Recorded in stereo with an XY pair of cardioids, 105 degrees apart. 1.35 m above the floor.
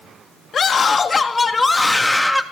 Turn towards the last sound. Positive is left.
turn(degrees=0)